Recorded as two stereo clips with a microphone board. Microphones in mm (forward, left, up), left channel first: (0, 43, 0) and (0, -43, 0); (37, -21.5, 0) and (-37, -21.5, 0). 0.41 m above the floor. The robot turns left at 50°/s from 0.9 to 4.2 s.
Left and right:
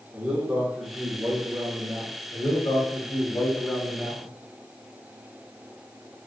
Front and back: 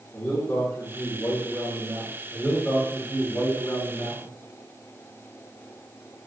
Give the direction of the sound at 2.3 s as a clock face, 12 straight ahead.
9 o'clock.